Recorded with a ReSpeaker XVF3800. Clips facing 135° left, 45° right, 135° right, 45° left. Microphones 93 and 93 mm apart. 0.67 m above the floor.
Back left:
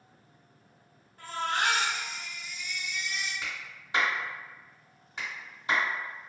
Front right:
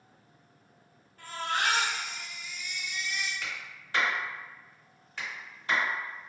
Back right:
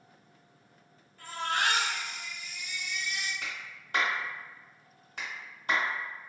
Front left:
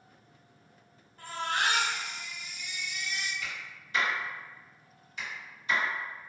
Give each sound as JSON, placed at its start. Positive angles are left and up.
{"t": 1.2, "sound": "a baby crying", "azimuth_deg": 80, "distance_m": 1.4}
{"t": 3.4, "sound": "a clap", "azimuth_deg": -155, "distance_m": 1.2}